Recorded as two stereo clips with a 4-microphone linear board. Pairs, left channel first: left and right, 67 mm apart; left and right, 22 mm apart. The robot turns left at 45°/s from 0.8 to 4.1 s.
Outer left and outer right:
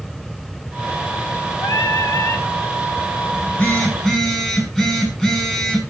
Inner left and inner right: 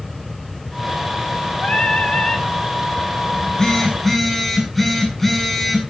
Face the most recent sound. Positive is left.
turn(degrees=0)